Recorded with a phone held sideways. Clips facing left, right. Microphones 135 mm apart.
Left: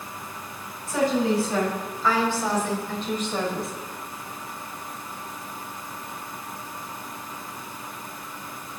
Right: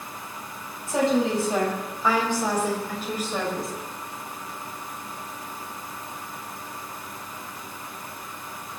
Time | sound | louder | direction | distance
0.9 | a woman speaking | even | 25° right (ahead or behind) | 5.5 m